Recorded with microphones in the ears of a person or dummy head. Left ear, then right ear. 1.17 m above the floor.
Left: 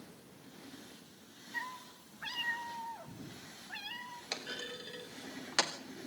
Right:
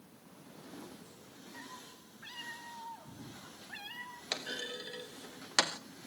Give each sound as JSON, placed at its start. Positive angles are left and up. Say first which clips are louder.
{"t": 1.5, "sound": "a cat meowing", "louder": "left 9 dB", "side_deg": 60, "distance_m": 1.5}
{"t": 4.3, "sound": "a clunk", "louder": "right 3 dB", "side_deg": -15, "distance_m": 0.5}